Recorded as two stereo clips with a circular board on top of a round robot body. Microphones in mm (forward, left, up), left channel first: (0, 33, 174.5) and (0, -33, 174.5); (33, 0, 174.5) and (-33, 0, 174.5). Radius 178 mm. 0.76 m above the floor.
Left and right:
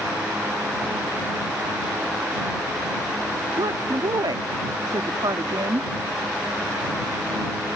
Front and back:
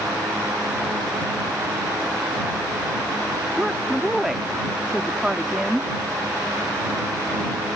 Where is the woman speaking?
100° right.